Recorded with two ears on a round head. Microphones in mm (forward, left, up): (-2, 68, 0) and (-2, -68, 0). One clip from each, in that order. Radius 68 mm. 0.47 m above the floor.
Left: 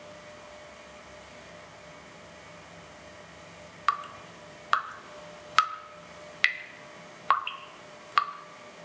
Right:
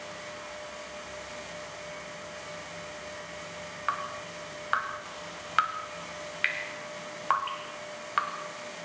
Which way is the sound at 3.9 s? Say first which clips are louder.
Left 4 dB; 75° left (ahead or behind).